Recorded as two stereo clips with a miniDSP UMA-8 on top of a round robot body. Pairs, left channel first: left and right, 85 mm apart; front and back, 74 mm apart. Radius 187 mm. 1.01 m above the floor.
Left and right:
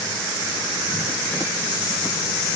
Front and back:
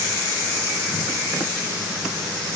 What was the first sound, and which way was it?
Only background noise.